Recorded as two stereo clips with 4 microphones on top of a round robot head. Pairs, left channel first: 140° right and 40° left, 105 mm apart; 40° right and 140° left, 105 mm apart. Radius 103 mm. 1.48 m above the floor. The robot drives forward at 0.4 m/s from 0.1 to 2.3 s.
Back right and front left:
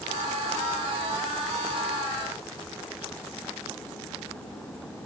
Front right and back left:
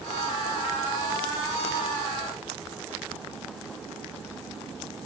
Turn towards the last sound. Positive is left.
No sound to turn to.